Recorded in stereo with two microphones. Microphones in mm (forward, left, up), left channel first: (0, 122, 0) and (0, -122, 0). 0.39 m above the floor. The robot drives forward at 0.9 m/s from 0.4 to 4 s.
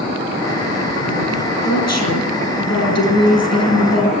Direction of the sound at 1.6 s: 80° left.